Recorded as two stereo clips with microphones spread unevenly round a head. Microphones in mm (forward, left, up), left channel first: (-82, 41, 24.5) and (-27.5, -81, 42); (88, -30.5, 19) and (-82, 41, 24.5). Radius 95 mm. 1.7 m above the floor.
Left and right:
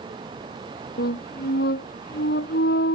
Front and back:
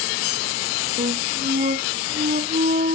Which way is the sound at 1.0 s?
105° left.